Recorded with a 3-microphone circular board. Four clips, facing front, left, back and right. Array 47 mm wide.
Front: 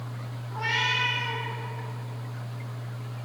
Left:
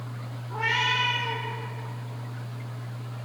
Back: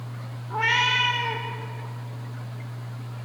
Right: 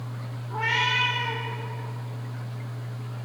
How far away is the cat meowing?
About 6 m.